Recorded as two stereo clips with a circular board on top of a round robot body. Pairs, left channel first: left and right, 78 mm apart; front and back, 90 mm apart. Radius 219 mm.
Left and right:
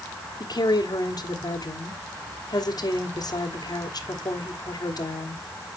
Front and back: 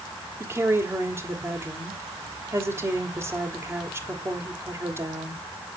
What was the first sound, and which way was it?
A woman speaking, 120° left.